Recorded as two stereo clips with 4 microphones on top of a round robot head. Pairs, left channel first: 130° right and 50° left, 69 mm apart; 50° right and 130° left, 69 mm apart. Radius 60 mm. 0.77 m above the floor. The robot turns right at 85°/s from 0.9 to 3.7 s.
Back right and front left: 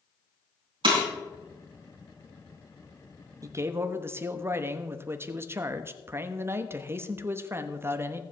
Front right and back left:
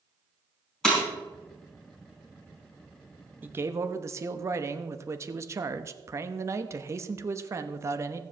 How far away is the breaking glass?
About 4.5 m.